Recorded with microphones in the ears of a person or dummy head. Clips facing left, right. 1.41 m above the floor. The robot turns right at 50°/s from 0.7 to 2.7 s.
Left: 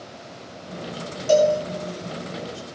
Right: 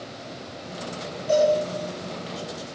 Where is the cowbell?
65° left (ahead or behind), 3.5 m; by 1.5 s 50° left (ahead or behind), 3.5 m.